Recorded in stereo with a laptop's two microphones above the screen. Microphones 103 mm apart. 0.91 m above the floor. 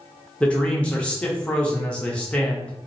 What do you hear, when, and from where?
0.4 s a man speaking: 10° left (ahead or behind), 1.0 m